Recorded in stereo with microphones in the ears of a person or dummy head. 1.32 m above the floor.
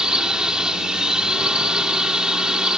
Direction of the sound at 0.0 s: Centre (ahead or behind).